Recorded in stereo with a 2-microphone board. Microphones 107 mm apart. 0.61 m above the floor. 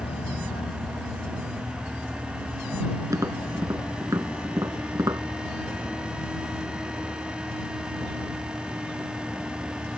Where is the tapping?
35° right (ahead or behind).